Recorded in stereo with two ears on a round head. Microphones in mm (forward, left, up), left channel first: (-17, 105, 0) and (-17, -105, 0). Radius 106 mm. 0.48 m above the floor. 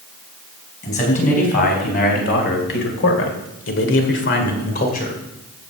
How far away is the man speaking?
About 4.5 m.